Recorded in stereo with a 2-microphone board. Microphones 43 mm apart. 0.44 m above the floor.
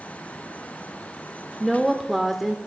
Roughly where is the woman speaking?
Centre.